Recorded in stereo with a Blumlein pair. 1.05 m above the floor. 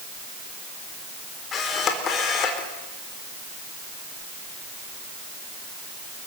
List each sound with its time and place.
1.5 s a camera shutter: 25° left, 4 m